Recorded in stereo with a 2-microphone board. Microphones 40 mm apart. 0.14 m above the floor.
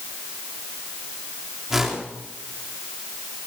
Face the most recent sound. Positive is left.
turn(degrees=-15)  # may be behind; listen again after turning